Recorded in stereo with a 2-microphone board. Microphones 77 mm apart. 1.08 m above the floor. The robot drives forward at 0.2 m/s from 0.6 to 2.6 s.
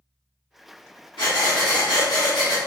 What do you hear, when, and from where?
1.2 s breathing: 75° left (ahead or behind), 1.0 m; by 2.6 s 65° left (ahead or behind), 1.1 m